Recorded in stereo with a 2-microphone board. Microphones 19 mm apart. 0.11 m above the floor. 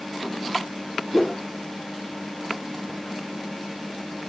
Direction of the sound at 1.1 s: 5° left (ahead or behind).